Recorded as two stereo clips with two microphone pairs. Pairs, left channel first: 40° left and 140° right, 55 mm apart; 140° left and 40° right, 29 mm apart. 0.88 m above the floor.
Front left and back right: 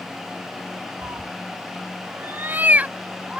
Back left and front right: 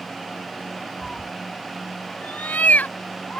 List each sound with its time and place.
1.0 s a cat meowing: 140° right; by 3.4 s 150° left